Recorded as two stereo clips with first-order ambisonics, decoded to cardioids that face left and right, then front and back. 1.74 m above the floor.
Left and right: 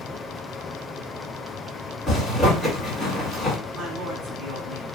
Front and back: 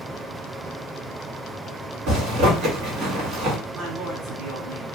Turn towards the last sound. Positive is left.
turn(degrees=-135)